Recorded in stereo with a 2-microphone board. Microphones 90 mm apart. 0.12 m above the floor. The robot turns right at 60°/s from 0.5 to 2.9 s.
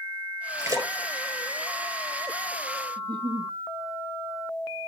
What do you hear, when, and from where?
0.6 s a splash: 40° right (ahead or behind), 1.5 m; by 2.8 s 60° left (ahead or behind), 1.5 m
3.0 s a giggle: 50° right (ahead or behind), 1.1 m